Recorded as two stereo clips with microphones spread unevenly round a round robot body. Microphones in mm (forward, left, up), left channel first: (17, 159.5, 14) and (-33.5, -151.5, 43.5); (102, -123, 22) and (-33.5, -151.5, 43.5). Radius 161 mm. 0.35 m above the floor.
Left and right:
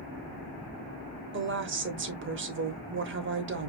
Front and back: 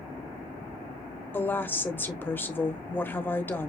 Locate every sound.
1.3 s a woman speaking: 55° right, 1.2 m